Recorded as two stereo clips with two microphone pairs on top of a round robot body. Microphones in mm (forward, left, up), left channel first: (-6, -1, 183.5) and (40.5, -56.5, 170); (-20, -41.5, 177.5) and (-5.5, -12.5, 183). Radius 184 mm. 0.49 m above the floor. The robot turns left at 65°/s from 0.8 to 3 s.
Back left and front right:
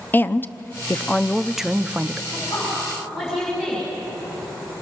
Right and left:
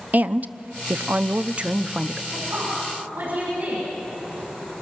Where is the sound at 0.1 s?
65° left, 0.9 m; by 2.2 s 25° right, 0.9 m.